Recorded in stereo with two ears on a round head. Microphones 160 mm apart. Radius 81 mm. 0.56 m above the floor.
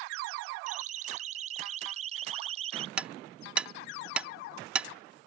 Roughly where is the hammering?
Centre.